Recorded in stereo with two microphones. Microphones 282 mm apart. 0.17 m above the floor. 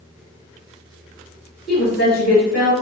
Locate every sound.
1.7 s a woman speaking: 35° left (ahead or behind), 3 m